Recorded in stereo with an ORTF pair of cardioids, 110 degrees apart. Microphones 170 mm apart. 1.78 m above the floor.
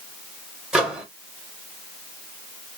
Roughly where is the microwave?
Ahead.